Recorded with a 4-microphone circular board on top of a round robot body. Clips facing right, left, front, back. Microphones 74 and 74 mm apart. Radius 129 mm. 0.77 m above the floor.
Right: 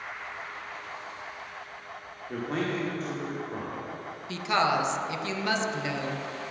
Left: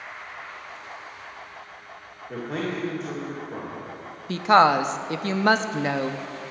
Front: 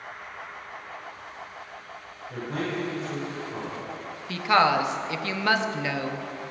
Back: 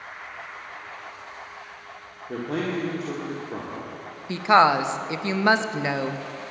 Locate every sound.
2.3 s a man speaking: straight behind, 1.9 m
4.3 s a woman speaking: 115° left, 0.7 m